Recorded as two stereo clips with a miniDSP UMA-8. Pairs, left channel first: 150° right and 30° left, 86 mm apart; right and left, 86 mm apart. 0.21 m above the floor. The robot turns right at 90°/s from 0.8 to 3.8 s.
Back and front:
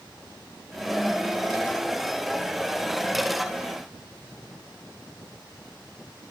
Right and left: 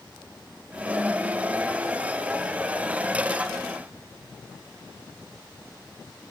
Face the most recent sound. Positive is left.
No sound to turn to.